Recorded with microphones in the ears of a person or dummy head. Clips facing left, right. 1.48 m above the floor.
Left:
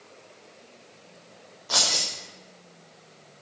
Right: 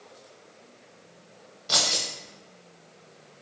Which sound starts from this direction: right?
Keys jangling, at 1.7 s.